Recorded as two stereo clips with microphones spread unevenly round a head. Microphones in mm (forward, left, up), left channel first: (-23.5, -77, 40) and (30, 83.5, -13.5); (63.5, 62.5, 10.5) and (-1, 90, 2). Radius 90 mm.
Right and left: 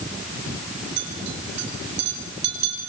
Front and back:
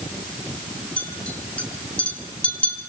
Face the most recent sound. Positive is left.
turn(degrees=50)